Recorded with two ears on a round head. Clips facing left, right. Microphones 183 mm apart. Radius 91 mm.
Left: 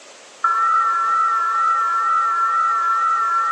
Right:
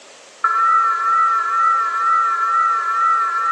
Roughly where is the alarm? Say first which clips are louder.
Right 2 dB; right.